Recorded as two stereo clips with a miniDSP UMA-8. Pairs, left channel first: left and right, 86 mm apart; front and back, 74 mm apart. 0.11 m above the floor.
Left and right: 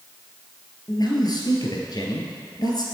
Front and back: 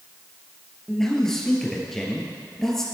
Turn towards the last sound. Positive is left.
turn(degrees=85)